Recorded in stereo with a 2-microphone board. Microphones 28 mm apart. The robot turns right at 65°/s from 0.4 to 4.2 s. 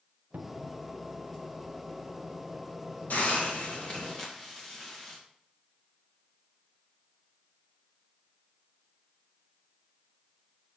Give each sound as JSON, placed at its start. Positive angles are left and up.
{"t": 0.3, "sound": "a cupboard door", "side_deg": -65, "distance_m": 0.8}
{"t": 3.1, "sound": "a hiss", "azimuth_deg": 95, "distance_m": 2.5}